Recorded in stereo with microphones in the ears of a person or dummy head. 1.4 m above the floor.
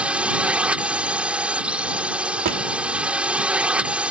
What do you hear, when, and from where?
0.0 s a drone: centre (ahead or behind)
2.4 s a drawer: 45° right (ahead or behind)